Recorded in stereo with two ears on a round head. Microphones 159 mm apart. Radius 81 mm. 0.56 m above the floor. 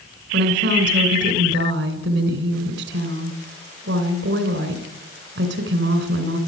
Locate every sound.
0.3 s a woman speaking: 70° right (ahead or behind), 2.5 m